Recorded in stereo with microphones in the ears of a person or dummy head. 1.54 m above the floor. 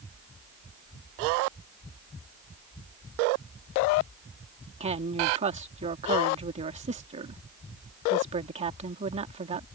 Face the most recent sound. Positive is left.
turn(degrees=-35)  # may be behind; listen again after turning